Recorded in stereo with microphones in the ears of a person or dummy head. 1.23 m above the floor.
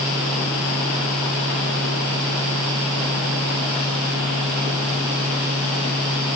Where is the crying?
I don't hear crying.